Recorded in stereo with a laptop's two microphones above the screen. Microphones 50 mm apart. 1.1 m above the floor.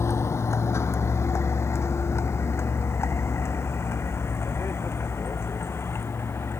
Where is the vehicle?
65° left (ahead or behind); by 6.6 s 55° left (ahead or behind).